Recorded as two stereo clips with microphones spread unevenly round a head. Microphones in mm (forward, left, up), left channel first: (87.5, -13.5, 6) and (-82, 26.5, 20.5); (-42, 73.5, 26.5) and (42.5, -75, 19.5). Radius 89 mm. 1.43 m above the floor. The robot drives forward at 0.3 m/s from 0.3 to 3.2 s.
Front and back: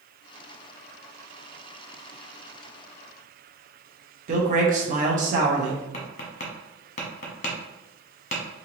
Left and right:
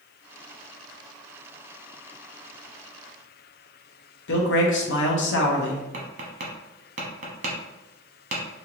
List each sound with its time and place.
4.3 s a man speaking: 120° left, 0.9 m
5.9 s tapping: 40° right, 0.9 m